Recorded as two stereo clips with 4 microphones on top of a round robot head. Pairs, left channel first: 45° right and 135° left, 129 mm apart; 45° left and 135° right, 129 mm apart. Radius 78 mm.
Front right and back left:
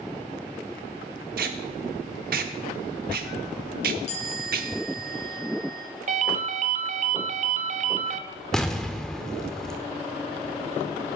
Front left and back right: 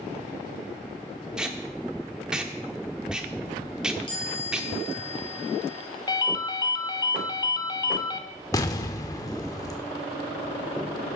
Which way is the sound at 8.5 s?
35° left.